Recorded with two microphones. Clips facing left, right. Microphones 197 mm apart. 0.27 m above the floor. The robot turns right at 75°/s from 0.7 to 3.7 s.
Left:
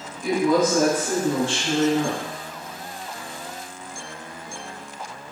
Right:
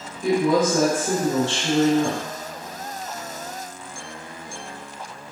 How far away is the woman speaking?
About 1.3 m.